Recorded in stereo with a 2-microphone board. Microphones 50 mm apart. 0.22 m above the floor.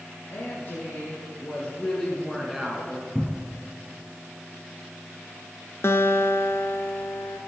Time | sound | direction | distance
0.3 | a woman speaking | 50° left (ahead or behind) | 4 m
3.1 | a cupboard door | 5° right (ahead or behind) | 0.8 m
5.8 | a guitar | 65° left (ahead or behind) | 0.9 m